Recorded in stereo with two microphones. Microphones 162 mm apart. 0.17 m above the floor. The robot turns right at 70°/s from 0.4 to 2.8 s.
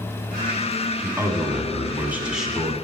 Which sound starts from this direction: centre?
A man speaking, at 1.0 s.